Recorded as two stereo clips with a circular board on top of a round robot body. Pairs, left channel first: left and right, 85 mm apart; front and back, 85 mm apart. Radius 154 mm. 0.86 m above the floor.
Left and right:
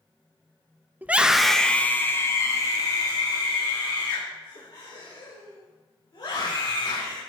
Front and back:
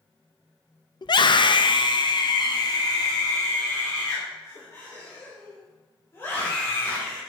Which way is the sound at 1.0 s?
25° right.